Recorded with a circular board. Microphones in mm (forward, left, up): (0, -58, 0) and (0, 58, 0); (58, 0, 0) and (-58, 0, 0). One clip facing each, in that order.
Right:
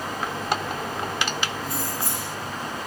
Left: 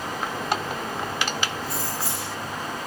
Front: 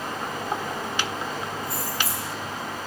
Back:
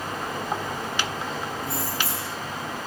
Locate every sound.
1.6 s keys jangling: 125° right, 1.2 m